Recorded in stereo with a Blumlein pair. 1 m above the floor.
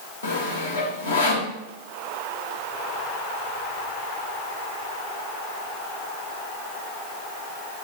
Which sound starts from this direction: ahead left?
Sawing, at 0.2 s.